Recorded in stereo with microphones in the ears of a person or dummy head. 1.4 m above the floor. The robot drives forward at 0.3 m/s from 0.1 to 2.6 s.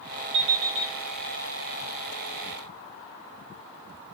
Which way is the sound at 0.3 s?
40° right (ahead or behind).